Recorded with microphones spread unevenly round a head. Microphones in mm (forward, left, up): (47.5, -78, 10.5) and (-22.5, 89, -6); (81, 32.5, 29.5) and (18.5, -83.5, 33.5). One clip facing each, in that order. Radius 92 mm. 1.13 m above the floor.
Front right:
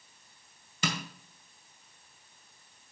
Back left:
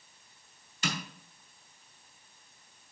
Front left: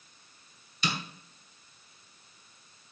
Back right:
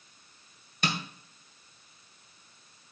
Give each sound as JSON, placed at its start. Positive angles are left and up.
{"t": 0.8, "sound": "tapping", "azimuth_deg": -80, "distance_m": 2.0}